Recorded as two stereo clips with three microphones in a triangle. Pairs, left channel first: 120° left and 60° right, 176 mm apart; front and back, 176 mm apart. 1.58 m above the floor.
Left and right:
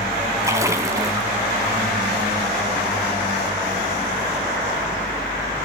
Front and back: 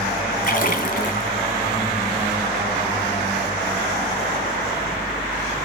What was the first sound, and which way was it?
A splash, 10° left.